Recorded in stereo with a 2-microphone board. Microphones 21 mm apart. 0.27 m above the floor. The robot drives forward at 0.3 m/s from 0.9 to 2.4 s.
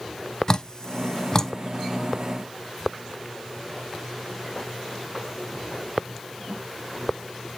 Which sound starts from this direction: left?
Dripping, at 0.5 s.